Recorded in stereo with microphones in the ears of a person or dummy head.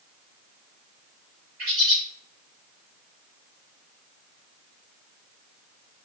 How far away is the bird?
About 2.5 m.